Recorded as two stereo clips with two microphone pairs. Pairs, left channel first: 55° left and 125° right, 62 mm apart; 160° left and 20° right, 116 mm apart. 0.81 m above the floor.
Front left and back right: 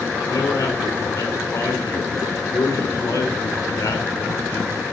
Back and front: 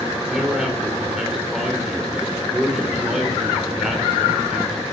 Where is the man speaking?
65° left, 2.5 m.